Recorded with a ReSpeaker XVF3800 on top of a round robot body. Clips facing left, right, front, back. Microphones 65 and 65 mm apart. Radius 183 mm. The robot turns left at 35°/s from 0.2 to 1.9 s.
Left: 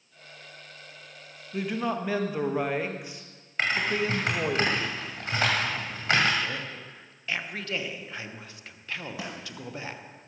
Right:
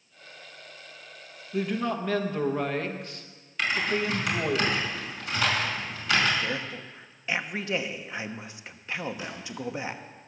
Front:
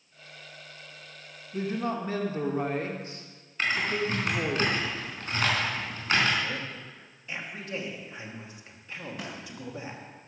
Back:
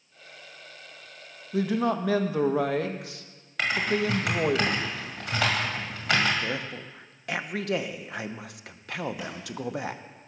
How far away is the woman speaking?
About 1.1 m.